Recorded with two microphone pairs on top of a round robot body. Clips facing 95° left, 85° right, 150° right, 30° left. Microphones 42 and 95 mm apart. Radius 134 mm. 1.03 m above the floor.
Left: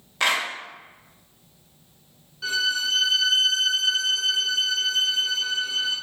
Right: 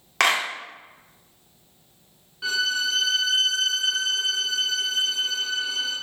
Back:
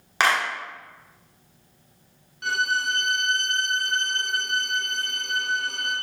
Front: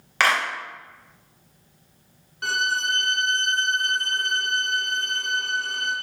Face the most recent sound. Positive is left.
turn(degrees=-15)